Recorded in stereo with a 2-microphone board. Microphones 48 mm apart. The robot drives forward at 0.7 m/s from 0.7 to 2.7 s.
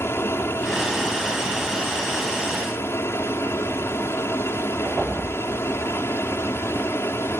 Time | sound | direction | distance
0.0 | an aircraft | 60° left (ahead or behind) | ?